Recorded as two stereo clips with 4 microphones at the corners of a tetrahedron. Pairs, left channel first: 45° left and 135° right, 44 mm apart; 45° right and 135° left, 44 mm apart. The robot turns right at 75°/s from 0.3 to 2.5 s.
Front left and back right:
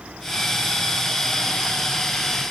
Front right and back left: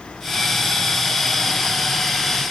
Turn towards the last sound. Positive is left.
No sound to turn to.